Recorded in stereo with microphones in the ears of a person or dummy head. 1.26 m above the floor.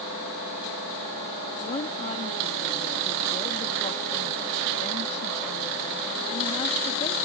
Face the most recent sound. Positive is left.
turn(degrees=35)  # may be behind; listen again after turning